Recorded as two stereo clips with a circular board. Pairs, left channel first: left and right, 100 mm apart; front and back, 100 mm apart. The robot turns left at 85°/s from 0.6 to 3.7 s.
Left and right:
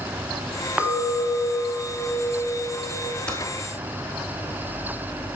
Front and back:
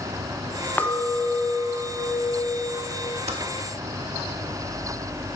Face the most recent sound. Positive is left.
turn(degrees=135)